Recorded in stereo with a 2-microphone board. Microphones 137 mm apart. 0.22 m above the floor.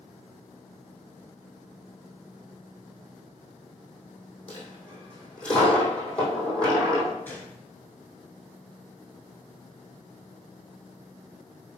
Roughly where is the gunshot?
Centre.